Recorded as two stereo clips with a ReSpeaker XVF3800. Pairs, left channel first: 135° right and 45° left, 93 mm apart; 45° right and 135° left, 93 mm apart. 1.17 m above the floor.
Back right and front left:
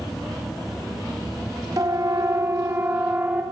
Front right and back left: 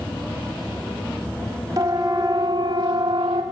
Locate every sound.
1.8 s a siren: 90° left, 3 m; by 3.4 s 115° left, 3.5 m